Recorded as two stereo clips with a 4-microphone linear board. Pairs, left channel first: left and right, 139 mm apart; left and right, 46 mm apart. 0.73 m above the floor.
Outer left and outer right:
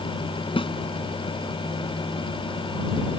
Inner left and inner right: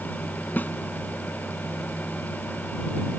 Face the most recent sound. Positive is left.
turn(degrees=40)  # may be behind; listen again after turning